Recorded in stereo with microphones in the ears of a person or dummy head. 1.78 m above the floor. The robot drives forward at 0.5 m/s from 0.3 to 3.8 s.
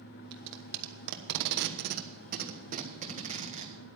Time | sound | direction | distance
0.3 | tape being pulled | 60° right (ahead or behind) | 1.2 m